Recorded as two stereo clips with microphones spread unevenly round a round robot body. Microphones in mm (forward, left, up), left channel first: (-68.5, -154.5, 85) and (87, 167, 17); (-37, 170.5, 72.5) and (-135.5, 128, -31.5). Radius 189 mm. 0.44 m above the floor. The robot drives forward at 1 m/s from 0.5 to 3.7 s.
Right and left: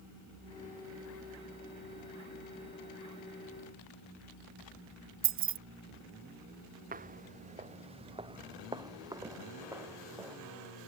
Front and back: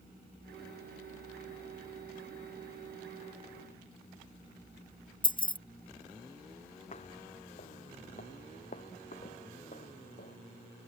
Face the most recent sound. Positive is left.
turn(degrees=-20)